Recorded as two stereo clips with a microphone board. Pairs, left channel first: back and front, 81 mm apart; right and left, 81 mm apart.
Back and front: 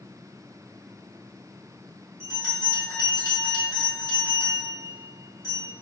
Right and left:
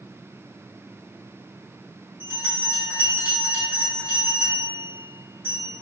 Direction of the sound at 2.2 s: 150° left.